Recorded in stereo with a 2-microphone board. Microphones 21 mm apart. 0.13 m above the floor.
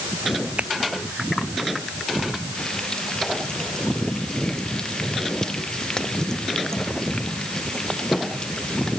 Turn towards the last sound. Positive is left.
turn(degrees=30)  # may be behind; listen again after turning